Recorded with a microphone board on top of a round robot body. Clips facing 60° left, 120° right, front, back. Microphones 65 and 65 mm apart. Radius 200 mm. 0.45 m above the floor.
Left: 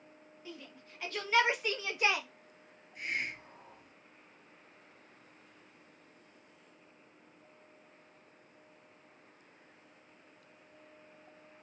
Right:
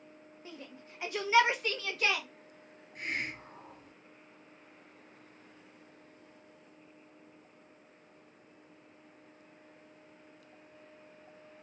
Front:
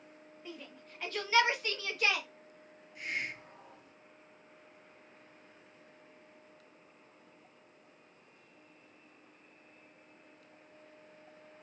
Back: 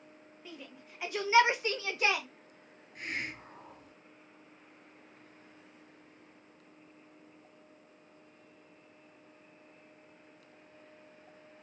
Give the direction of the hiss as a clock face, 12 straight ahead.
5 o'clock.